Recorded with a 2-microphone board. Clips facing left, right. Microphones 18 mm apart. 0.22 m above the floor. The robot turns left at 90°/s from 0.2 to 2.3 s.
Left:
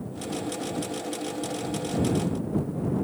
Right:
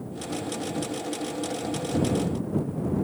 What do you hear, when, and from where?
Only background noise.